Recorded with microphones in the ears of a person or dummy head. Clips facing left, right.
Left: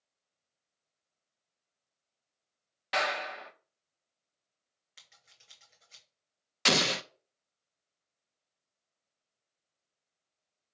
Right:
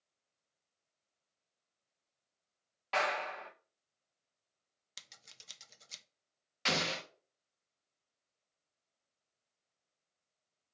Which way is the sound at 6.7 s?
55° left (ahead or behind).